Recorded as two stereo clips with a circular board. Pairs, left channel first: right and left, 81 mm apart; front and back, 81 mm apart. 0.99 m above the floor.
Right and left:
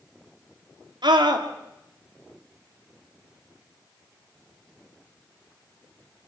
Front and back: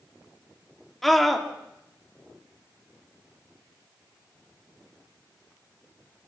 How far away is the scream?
About 3 m.